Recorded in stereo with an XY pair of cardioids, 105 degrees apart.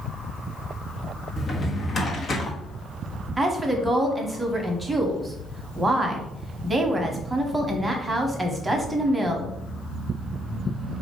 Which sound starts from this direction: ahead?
A woman speaking, at 3.4 s.